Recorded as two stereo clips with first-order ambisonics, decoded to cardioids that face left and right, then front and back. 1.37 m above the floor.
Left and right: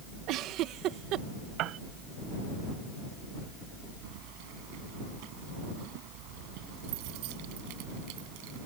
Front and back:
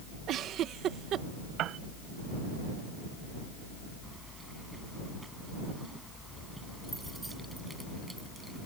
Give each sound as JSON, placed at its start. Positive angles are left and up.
{"t": 0.3, "sound": "a giggle", "azimuth_deg": -130}
{"t": 1.6, "sound": "a piano", "azimuth_deg": -130}
{"t": 4.0, "sound": "keys jangling", "azimuth_deg": -95}